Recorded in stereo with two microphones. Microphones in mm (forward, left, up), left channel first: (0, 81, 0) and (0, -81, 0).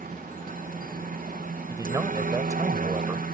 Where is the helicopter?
60° right (ahead or behind).